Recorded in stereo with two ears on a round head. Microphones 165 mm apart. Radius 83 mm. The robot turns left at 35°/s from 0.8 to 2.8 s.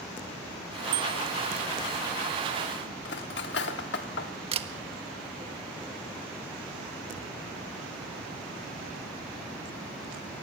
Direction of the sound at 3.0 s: 65° left (ahead or behind).